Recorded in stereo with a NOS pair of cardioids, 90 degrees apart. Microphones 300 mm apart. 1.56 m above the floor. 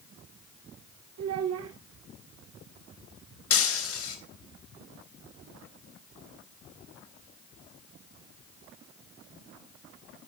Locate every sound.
1.2 s a child speaking: 55° right, 1.4 m
3.5 s breaking glass: 50° left, 4 m